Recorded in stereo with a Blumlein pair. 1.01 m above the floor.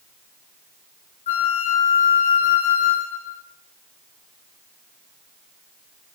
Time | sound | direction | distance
1.3 | a flute | 65° left | 1.4 m